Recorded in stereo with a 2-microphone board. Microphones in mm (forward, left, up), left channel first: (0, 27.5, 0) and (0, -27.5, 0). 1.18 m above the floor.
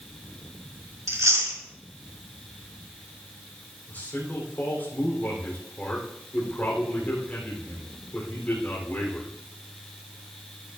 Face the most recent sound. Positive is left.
turn(degrees=35)  # may be behind; listen again after turning